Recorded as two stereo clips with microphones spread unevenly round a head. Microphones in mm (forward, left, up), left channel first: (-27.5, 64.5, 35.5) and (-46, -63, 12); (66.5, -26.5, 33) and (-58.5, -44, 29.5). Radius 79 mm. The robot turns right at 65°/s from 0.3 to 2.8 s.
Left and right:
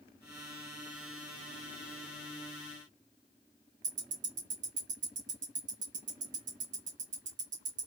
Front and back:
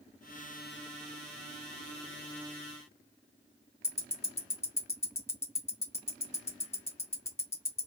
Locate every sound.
3.8 s ticking: 60° right, 1.6 m